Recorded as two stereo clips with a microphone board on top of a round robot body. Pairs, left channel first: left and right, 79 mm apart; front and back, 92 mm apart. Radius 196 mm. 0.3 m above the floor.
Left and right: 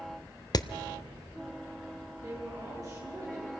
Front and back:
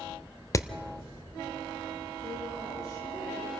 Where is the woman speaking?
45° right, 10 m.